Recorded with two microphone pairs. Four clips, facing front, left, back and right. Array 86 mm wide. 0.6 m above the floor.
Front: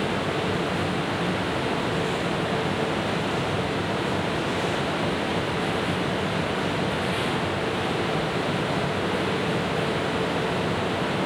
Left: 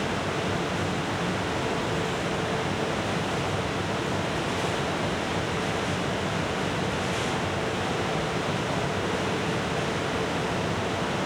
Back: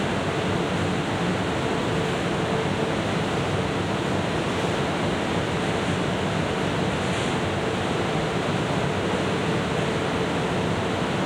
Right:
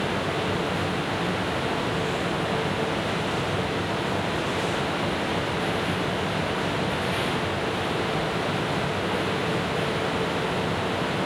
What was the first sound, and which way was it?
Only background noise.